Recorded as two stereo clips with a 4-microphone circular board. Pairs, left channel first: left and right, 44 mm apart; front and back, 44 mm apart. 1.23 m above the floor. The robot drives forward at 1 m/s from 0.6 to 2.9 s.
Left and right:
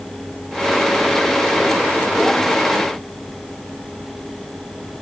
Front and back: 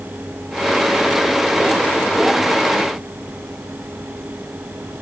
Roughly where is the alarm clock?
No alarm clock in this recording.